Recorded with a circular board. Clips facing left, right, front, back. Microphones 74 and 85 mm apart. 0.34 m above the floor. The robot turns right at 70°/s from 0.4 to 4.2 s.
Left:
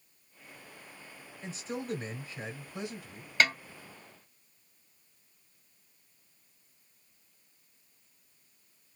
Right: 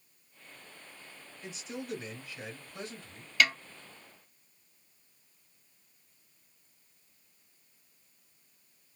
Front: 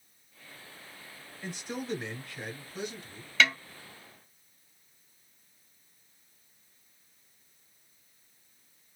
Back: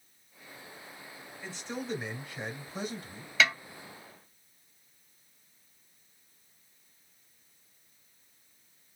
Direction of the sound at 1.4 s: 55° left.